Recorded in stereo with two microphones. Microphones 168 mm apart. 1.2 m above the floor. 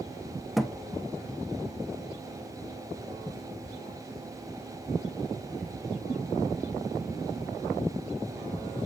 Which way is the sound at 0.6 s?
Centre (ahead or behind).